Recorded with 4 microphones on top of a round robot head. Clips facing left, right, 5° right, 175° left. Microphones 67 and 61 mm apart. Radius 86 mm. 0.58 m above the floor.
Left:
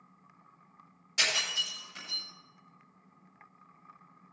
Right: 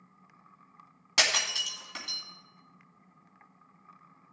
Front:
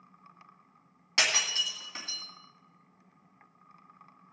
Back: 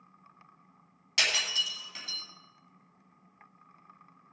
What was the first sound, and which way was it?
Breaking glass, 70° right.